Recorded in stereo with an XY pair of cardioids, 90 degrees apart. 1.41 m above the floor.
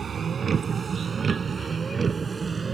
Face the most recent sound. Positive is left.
turn(degrees=-35)